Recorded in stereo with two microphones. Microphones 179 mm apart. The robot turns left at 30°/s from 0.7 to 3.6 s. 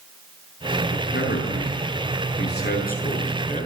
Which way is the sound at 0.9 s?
115° left.